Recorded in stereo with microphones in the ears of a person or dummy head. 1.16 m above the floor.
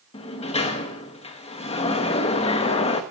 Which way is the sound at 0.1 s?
35° left (ahead or behind).